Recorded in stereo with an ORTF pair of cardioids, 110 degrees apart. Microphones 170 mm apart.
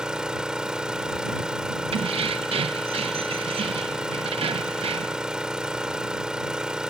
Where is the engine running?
5° right.